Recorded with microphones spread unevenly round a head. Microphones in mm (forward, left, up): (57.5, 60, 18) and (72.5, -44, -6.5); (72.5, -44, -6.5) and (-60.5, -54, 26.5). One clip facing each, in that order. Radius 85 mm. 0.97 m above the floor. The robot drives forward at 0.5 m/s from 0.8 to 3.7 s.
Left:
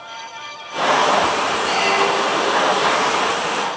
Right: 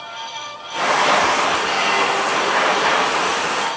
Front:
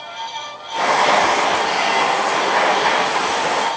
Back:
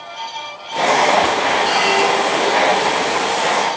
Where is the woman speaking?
I don't hear a woman speaking.